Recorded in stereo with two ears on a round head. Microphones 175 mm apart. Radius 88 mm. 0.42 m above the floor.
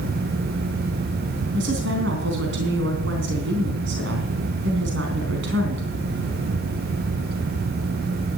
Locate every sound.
1.5 s a woman speaking: 65° right (ahead or behind), 4 m